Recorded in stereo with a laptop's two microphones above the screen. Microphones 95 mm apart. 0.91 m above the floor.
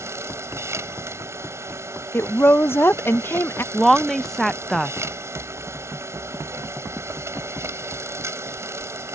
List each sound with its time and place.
0.0 s a machine running: 30° right (ahead or behind)
2.1 s a woman speaking: 25° left (ahead or behind)
3.7 s a woman speaking: 5° left (ahead or behind)